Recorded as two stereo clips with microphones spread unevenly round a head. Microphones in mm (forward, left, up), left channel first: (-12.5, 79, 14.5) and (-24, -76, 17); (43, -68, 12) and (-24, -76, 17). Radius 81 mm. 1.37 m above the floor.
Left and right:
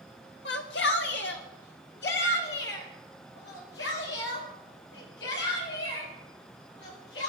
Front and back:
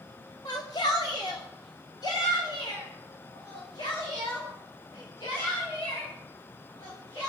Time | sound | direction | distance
0.5 | a shout | 60° left | 2 m